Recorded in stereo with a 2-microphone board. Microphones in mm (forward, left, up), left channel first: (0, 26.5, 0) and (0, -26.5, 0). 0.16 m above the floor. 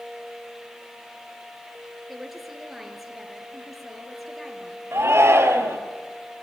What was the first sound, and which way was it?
A woman speaking, 5° right (ahead or behind).